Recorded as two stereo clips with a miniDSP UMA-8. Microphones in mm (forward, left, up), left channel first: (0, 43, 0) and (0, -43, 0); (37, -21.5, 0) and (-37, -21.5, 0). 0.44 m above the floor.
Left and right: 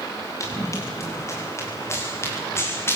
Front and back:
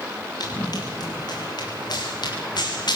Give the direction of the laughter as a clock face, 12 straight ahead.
I don't hear laughter.